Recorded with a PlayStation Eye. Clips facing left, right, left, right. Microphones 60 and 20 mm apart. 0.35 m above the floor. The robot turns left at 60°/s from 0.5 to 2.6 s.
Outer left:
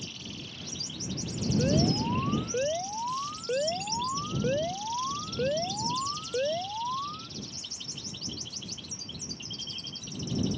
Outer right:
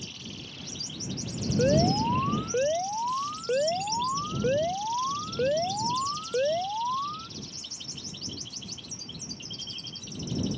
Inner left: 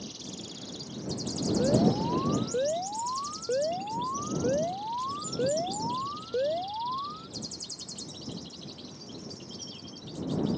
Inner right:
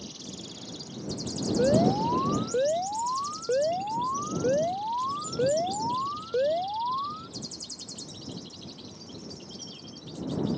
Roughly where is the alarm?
Right.